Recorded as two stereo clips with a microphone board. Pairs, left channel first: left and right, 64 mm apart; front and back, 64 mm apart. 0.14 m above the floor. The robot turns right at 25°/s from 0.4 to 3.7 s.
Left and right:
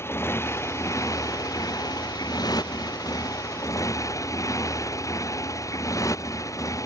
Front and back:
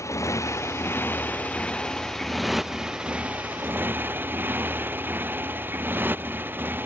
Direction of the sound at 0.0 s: 40° left.